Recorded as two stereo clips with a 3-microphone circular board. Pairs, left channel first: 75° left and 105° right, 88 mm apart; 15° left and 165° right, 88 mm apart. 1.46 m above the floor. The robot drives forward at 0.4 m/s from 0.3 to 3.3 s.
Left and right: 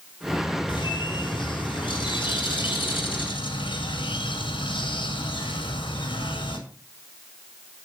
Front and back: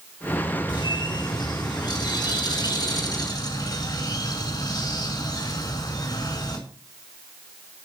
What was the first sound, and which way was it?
A bird, 50° left.